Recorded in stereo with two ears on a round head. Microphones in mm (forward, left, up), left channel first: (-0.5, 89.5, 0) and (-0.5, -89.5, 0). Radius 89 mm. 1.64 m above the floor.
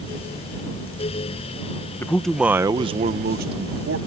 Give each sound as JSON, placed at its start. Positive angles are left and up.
{"t": 2.0, "sound": "a man speaking", "side_deg": 15}